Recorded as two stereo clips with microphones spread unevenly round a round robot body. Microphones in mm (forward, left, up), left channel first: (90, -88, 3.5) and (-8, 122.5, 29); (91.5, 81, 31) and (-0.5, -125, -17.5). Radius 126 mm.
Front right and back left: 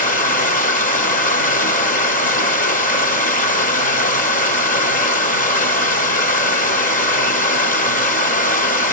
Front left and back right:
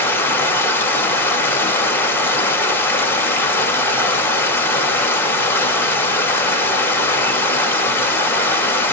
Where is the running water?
25° right, 0.9 m.